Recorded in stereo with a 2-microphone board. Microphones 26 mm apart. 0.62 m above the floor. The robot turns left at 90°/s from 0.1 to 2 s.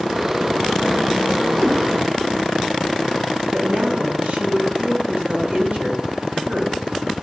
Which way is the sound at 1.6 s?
10° left (ahead or behind).